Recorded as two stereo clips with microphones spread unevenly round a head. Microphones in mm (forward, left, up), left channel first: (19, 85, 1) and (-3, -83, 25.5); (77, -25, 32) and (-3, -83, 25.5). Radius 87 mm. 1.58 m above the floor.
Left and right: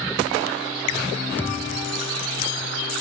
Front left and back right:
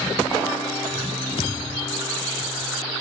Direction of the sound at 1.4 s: Straight ahead.